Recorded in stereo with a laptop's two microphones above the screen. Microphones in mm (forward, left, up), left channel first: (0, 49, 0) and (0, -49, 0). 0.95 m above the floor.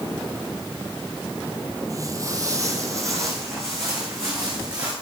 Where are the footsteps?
35° right (ahead or behind), 1.3 m; by 4.9 s 25° right (ahead or behind), 4.5 m.